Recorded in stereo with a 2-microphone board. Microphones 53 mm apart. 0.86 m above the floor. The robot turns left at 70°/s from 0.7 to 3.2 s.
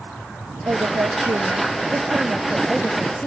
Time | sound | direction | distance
0.7 | a woman speaking | 50° right | ?